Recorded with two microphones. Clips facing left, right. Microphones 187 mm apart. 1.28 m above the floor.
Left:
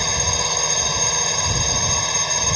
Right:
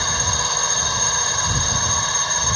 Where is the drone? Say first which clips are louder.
Left 2 dB; 15° left (ahead or behind).